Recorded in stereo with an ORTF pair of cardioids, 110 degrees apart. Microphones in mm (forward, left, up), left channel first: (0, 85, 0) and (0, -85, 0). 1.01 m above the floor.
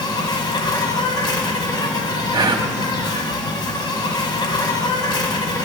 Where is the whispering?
25° right, 1.6 m.